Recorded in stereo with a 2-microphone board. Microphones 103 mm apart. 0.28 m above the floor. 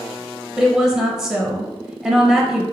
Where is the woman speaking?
5° right (ahead or behind), 1.0 m.